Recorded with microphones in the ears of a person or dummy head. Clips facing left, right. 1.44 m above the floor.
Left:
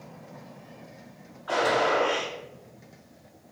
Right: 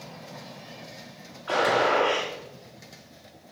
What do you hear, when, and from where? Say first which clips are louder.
1.5 s a gunshot: right 1 dB; 30° right (ahead or behind), 1.2 m